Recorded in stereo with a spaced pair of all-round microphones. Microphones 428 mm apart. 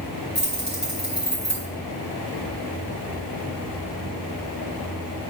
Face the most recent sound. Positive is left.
turn(degrees=65)  # may be behind; listen again after turning